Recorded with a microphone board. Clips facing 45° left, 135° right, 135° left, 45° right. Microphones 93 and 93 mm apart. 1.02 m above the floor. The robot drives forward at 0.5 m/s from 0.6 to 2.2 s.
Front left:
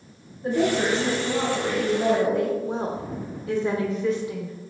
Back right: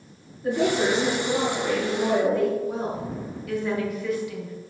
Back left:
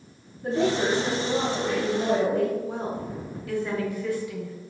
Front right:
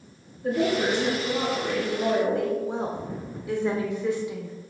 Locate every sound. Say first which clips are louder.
0.4 s a woman speaking: even, even; 90° left, 1.7 m; by 2.5 s 115° left, 1.9 m
2.6 s a woman speaking: even, front right 1 dB; 10° left, 0.5 m